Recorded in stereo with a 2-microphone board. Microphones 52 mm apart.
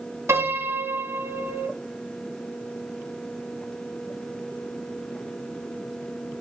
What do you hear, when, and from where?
0.3 s a piano: 60° right (ahead or behind), 3.5 m